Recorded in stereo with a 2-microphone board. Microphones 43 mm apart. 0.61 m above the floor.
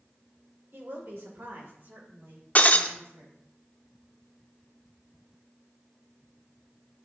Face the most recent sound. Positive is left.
turn(degrees=40)  # may be behind; listen again after turning